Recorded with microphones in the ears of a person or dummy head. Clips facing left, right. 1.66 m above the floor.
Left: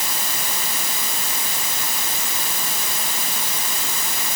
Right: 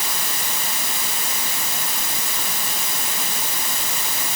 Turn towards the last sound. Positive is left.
No sound to turn to.